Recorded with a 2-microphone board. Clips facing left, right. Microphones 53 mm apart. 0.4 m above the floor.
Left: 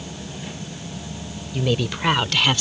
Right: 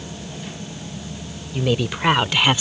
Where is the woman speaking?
5° right (ahead or behind); by 2.6 s 15° right (ahead or behind).